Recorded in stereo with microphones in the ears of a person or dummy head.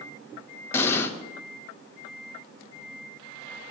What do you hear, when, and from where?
0.7 s an explosion: 15° left (ahead or behind), 0.6 m